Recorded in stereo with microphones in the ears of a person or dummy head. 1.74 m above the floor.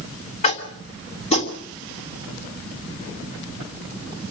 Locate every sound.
0.4 s tapping: 35° left (ahead or behind), 2.5 m